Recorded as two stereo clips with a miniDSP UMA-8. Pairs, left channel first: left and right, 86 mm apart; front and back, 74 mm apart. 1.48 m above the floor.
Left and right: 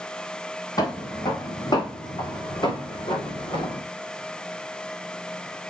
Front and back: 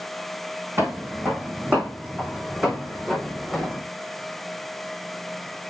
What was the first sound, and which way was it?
Footsteps, 125° left.